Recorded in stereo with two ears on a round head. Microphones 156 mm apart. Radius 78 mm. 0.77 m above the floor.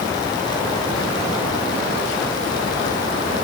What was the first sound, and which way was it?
Only background noise.